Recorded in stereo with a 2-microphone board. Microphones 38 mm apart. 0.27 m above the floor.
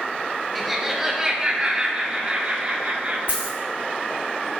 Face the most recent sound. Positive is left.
turn(degrees=-40)  # may be behind; listen again after turning